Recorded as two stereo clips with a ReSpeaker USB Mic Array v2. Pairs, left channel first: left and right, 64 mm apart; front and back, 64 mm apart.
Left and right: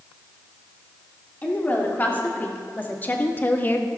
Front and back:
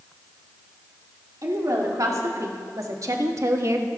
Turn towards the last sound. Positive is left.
turn(degrees=145)